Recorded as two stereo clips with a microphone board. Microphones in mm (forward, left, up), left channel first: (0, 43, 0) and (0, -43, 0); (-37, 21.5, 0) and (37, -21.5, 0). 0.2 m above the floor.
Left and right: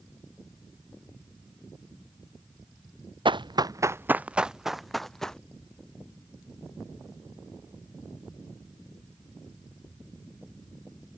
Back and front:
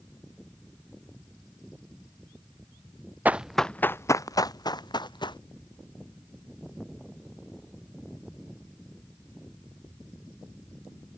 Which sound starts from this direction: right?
Running footsteps, at 3.2 s.